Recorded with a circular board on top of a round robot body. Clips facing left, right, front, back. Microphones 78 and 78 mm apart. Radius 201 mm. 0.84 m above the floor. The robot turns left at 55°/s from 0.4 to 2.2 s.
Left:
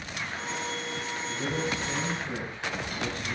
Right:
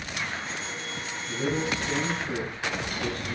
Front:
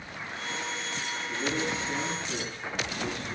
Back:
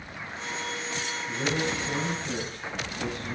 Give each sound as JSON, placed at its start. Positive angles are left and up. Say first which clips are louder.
{"t": 1.3, "sound": "a man speaking", "louder": "right 4 dB, back 2 dB", "azimuth_deg": -145, "distance_m": 5.5}